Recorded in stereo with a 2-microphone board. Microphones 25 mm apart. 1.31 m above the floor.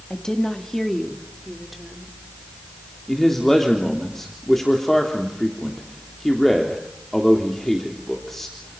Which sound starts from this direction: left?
A woman speaking, at 0.1 s.